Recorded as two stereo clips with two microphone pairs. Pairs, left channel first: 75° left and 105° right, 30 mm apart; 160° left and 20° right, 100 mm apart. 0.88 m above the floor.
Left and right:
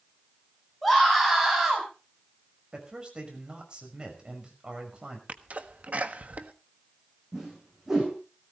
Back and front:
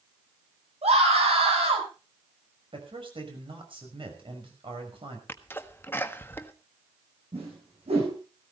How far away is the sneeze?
About 1.4 m.